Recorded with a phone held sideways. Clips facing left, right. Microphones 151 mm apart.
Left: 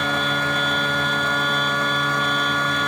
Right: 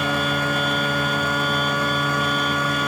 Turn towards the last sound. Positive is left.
turn(degrees=-5)  # may be behind; listen again after turning